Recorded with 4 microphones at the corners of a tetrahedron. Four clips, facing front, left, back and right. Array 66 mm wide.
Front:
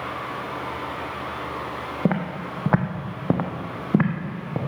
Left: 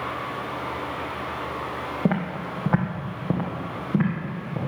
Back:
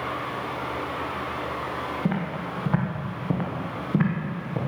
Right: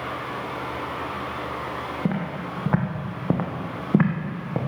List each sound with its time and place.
2.0 s footsteps: 25° left, 1.7 m; by 4.6 s 50° right, 2.5 m